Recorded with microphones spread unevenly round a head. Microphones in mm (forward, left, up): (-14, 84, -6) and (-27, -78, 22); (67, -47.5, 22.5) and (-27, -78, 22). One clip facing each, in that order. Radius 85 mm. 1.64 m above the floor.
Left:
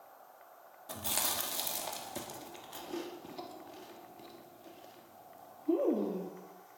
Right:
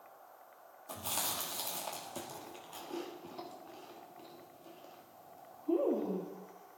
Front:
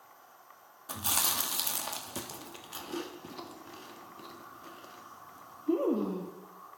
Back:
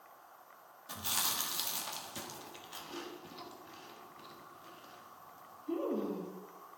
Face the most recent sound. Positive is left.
turn(degrees=0)